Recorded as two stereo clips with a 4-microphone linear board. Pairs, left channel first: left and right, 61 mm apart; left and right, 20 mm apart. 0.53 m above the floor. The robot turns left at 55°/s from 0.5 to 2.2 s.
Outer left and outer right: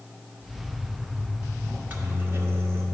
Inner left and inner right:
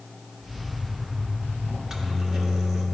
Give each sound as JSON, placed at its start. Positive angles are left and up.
{"t": 1.7, "sound": "a microwave", "side_deg": -25, "distance_m": 0.9}